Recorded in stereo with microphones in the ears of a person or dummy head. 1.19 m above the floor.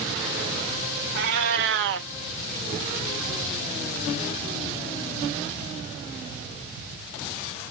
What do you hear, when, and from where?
1.1 s a cat meowing: 55° right (ahead or behind), 0.8 m